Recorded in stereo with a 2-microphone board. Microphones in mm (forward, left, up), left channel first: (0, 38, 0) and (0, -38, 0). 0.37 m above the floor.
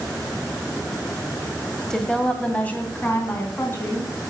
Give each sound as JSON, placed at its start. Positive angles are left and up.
{"t": 1.9, "sound": "a woman speaking", "side_deg": 10, "distance_m": 1.7}